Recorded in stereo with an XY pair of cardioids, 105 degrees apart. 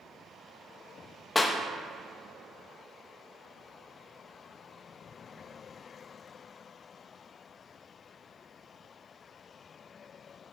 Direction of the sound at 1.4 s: 25° left.